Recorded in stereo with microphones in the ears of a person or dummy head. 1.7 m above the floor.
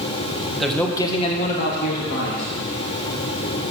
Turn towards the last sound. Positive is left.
turn(degrees=75)  # may be behind; listen again after turning